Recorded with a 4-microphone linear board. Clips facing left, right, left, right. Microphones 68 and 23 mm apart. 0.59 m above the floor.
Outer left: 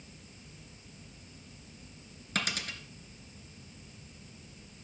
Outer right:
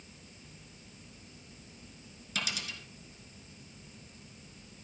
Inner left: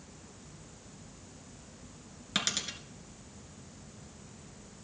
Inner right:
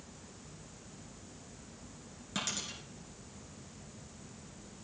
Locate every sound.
2.4 s a dropped coin: 50° left (ahead or behind), 1.5 m